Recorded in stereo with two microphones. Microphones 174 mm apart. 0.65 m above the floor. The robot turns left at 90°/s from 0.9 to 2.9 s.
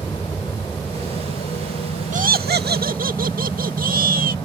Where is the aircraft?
10° left (ahead or behind); by 4.5 s 5° left (ahead or behind).